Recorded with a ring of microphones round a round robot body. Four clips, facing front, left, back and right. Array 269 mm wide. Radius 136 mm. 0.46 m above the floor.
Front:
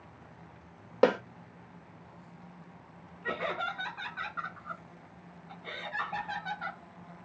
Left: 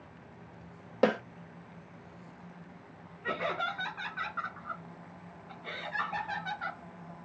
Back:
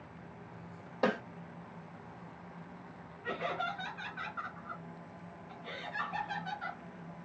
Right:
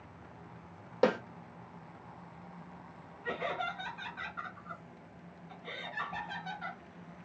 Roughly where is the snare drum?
Ahead.